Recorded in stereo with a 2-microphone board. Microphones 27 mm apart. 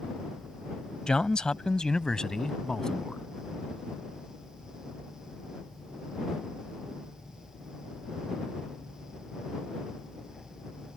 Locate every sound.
1.1 s a man speaking: 30° left (ahead or behind); by 3.2 s 25° left (ahead or behind)